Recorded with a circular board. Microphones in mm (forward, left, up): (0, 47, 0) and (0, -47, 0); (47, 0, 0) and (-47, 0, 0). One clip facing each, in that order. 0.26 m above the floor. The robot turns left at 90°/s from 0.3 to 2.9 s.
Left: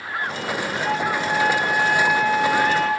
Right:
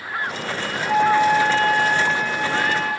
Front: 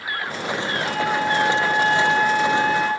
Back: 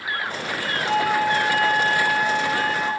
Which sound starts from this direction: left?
A flute, at 0.8 s.